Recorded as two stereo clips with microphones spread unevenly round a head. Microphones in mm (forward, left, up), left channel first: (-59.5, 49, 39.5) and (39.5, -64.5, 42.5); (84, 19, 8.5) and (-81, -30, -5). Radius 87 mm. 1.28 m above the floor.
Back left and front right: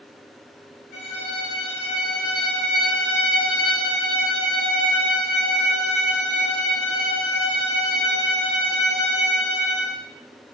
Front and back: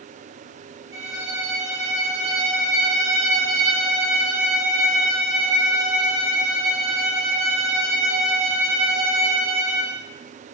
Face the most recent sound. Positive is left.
turn(degrees=145)